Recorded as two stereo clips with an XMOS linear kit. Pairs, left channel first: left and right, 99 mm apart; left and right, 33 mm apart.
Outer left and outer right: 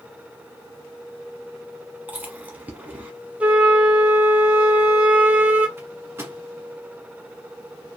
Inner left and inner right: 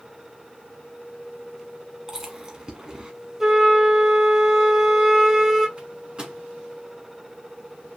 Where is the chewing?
15° right (ahead or behind), 0.9 m.